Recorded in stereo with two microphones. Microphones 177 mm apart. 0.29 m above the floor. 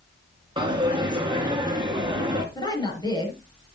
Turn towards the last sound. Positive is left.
turn(degrees=25)  # may be behind; listen again after turning